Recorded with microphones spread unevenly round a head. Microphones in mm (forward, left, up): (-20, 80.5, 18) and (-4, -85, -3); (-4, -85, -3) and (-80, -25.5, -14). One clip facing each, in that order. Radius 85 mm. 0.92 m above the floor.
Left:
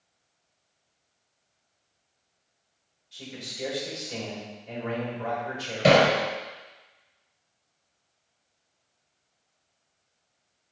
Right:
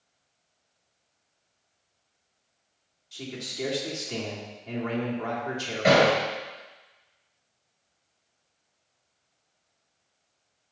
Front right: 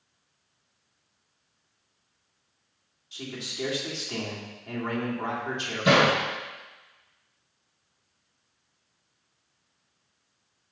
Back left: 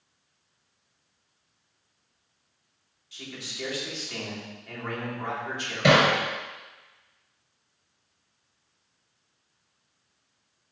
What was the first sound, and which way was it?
A man speaking, 100° right.